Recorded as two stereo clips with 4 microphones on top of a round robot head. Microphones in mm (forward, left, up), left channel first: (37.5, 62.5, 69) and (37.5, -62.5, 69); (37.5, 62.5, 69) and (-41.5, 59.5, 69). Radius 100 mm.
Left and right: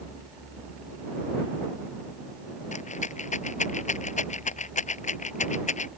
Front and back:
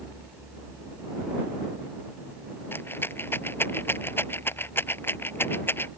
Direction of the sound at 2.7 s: 65° left.